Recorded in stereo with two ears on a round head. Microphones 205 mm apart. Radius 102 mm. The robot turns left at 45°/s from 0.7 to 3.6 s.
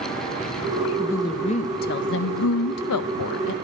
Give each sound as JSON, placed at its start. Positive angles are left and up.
{"t": 1.0, "sound": "a woman speaking", "azimuth_deg": 175, "distance_m": 0.5}